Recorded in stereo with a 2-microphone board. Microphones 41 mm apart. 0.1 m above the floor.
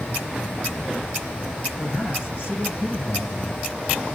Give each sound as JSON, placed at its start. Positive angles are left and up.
{"t": 1.8, "sound": "a man speaking", "side_deg": 55, "distance_m": 6.0}